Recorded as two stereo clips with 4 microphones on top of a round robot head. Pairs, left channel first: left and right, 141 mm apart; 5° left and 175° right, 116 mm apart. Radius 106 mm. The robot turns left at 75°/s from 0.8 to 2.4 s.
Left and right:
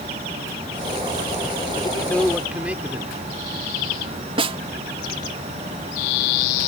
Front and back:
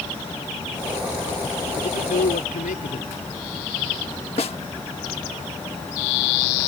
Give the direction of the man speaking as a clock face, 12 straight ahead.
11 o'clock.